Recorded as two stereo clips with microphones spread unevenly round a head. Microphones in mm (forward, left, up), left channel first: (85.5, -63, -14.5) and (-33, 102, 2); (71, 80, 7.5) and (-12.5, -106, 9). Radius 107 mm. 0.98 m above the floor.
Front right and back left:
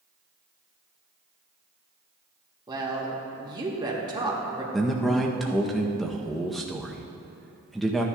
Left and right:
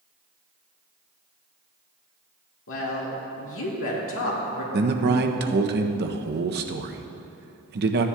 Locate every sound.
2.7 s a woman speaking: 55° left, 2.0 m
4.7 s a man speaking: 140° right, 0.7 m